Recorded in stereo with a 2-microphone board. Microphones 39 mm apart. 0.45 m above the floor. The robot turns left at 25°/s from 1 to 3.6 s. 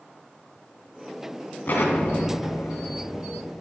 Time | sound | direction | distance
1.7 | an explosion | 55° left (ahead or behind) | 1.6 m